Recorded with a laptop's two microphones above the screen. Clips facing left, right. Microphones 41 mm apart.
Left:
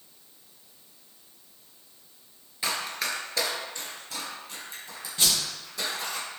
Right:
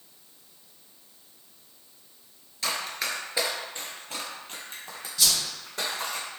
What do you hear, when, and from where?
2.6 s running footsteps: 20° left (ahead or behind), 1.0 m; by 6.2 s 60° right (ahead or behind), 3 m
5.2 s a whoosh: 35° left (ahead or behind), 0.6 m